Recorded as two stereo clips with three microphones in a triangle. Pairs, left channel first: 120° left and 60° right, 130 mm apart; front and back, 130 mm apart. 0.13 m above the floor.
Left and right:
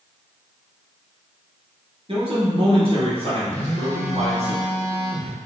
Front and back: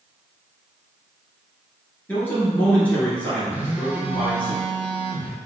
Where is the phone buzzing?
105° left, 0.8 m.